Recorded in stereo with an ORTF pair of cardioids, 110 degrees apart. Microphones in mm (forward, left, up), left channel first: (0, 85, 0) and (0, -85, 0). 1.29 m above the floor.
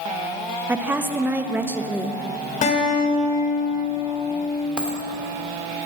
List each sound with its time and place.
0.7 s a woman speaking: 10° right, 1.0 m
2.6 s a guitar: 50° left, 3 m
4.8 s a dropped coin: 5° right, 2 m